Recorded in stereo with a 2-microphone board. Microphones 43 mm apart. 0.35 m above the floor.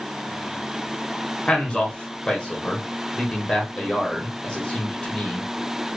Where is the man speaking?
25° left (ahead or behind), 1.4 m.